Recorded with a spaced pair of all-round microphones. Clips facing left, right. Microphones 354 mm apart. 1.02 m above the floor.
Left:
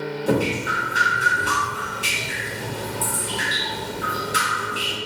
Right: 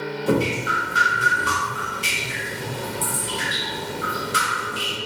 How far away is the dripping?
About 0.6 m.